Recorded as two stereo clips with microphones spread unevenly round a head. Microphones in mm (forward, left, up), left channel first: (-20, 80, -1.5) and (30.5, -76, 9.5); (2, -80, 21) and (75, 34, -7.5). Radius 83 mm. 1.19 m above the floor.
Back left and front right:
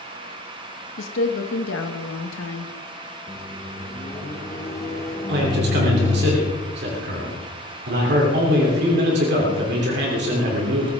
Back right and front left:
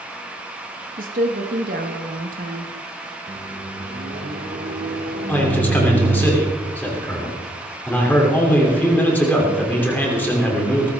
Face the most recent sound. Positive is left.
turn(degrees=-45)